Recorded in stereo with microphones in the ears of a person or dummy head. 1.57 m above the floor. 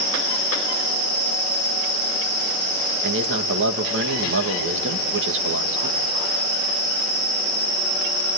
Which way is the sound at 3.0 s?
70° right (ahead or behind).